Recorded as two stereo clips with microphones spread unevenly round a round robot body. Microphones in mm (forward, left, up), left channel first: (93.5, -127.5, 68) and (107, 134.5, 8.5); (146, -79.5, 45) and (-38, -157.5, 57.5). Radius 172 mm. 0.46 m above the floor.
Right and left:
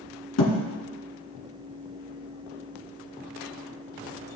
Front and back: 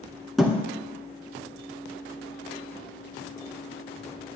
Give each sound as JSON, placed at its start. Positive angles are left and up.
{"t": 0.4, "sound": "a thud", "azimuth_deg": -65, "distance_m": 2.5}